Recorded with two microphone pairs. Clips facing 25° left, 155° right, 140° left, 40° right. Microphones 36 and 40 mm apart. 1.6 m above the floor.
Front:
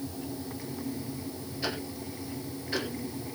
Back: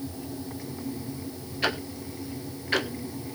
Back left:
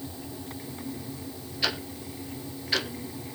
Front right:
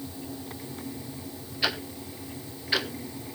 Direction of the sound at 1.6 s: 125° right.